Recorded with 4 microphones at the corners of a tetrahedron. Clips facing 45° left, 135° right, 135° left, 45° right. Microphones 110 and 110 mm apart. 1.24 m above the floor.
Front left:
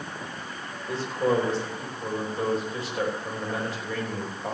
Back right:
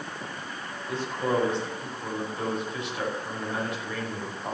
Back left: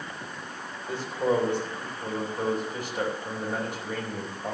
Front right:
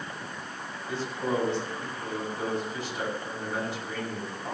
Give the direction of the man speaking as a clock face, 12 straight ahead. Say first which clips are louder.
Front left 3 dB, back left 4 dB; 9 o'clock.